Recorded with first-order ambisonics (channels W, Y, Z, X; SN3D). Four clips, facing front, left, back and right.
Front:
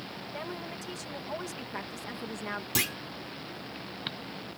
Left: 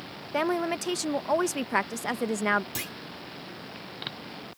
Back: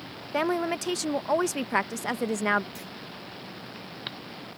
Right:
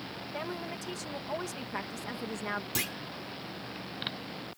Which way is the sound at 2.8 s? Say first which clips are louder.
Right 2 dB, front 11 dB; 10° right.